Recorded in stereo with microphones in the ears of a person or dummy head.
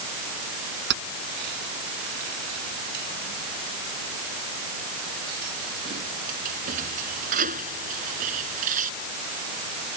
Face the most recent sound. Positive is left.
turn(degrees=-40)  # may be behind; listen again after turning